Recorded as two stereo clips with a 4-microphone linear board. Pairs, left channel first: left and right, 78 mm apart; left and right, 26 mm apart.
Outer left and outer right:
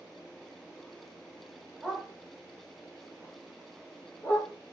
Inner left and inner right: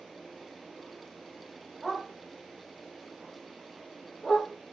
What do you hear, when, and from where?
1.8 s a dog barking: 10° right (ahead or behind), 1.2 m; by 4.5 s 25° left (ahead or behind), 2.5 m